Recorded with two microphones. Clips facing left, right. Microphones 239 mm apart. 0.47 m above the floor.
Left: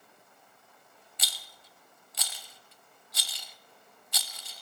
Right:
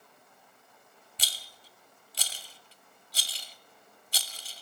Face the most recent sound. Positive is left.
turn(degrees=-30)  # may be behind; listen again after turning